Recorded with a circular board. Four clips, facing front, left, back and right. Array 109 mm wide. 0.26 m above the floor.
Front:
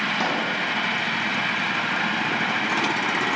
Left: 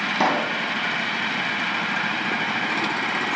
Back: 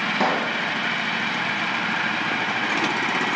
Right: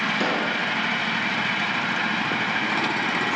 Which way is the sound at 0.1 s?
110° left.